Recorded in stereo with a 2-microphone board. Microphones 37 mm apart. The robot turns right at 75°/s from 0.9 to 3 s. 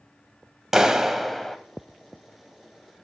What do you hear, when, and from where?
0.7 s a clap: 30° right, 0.8 m; by 1.6 s 25° left, 0.8 m